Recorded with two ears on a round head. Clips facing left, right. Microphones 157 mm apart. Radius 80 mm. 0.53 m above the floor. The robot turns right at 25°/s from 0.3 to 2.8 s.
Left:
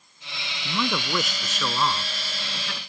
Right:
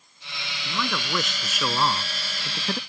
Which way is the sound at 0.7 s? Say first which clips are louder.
Left 3 dB; 160° left.